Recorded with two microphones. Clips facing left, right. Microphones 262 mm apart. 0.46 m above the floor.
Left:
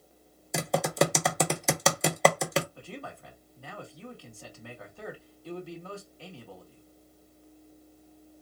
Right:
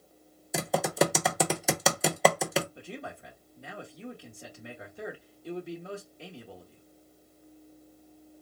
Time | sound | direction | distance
0.5 | typing on a keyboard | centre (ahead or behind) | 0.8 m
2.8 | a man speaking | 20° right (ahead or behind) | 1.4 m